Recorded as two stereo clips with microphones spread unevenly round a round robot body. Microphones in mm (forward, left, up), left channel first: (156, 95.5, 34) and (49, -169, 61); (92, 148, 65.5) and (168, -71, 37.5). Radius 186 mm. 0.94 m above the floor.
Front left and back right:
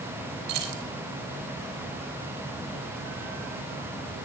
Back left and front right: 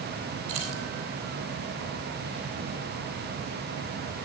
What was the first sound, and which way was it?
Keys jangling, 115° right.